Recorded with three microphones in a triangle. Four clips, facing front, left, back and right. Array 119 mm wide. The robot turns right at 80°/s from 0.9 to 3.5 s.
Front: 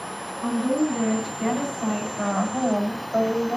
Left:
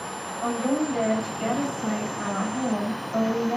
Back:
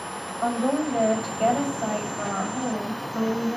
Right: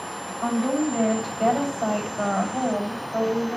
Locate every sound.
0.4 s a woman speaking: straight behind, 7.5 m; by 3.6 s 25° left, 7.5 m